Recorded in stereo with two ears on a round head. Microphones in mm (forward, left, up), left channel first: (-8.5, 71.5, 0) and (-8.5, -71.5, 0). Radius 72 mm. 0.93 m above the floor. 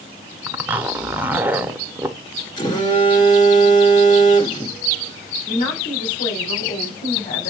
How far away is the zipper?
About 0.6 m.